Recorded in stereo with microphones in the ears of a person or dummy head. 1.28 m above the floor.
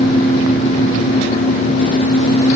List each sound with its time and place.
Only background noise.